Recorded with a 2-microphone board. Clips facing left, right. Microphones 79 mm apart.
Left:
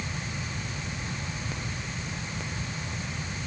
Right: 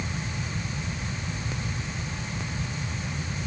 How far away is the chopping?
No chopping in this recording.